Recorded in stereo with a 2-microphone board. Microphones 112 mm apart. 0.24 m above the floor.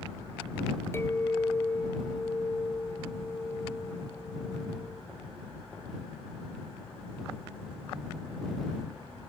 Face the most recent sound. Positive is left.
turn(degrees=20)  # may be behind; listen again after turning